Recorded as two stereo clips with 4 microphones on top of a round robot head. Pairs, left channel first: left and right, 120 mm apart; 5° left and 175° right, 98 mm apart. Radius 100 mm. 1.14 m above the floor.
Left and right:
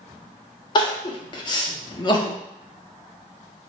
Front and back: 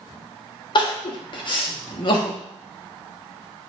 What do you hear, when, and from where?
0.8 s crying: 40° left, 0.6 m